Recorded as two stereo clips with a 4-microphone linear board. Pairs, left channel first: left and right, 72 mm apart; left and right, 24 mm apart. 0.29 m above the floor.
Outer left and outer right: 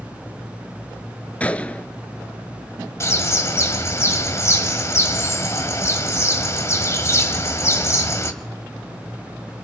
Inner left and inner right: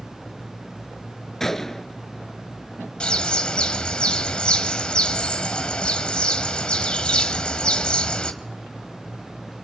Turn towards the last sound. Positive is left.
turn(degrees=40)  # may be behind; listen again after turning